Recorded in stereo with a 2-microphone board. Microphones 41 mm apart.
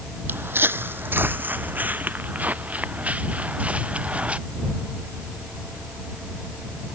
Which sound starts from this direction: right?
Footsteps, at 0.3 s.